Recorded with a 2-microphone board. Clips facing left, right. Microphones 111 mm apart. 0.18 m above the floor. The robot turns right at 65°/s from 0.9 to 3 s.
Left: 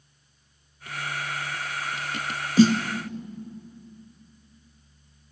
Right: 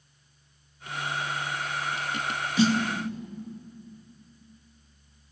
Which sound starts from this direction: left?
A snare drum, at 2.6 s.